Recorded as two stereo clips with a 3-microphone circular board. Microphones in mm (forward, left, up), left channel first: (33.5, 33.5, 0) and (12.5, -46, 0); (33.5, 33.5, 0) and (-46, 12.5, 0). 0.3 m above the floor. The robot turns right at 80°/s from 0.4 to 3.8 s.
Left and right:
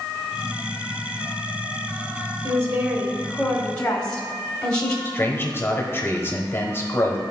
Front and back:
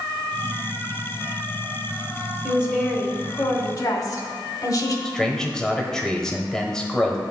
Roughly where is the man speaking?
Left.